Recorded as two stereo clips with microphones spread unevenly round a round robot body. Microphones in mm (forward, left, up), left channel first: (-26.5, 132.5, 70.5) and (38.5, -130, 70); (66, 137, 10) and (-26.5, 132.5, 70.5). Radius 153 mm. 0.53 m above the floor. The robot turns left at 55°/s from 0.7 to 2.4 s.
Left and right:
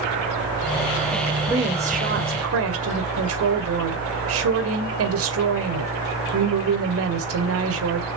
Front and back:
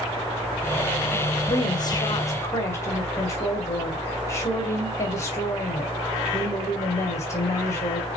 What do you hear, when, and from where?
1.5 s a woman speaking: 5° left, 2 m; by 8.1 s 45° right, 2 m